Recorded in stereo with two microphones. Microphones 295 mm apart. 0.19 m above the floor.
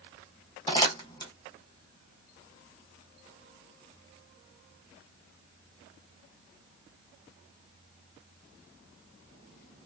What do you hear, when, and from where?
0.7 s crumpling: 15° left (ahead or behind), 1.1 m